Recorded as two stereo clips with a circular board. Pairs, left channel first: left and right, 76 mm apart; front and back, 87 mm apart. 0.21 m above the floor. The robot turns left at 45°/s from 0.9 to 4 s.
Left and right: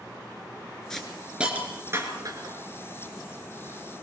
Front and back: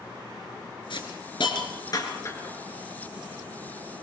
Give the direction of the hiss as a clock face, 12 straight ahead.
12 o'clock.